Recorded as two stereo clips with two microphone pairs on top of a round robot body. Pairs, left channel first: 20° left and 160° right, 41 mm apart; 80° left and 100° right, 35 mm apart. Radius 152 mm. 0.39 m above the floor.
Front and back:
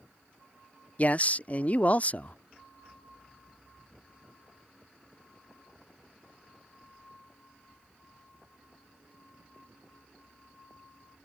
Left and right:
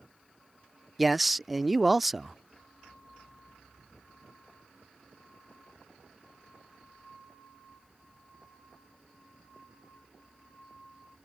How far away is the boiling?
I don't hear boiling.